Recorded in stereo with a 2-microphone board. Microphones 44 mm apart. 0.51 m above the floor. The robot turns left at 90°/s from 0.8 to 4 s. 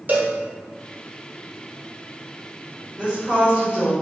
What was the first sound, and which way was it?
A cowbell, 45° right (ahead or behind).